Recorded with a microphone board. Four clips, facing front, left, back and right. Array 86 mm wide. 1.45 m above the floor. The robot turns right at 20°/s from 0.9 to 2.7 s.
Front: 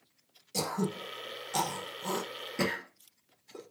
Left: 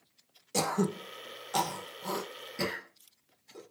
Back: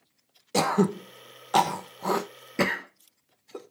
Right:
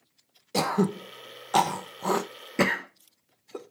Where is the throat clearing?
160° right, 1.1 m; by 3.7 s 125° right, 1.1 m.